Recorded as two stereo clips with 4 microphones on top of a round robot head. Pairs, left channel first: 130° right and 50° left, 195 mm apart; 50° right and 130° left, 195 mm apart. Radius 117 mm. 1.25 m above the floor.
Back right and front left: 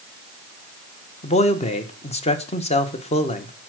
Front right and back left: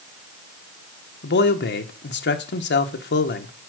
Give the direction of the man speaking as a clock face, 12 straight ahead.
2 o'clock.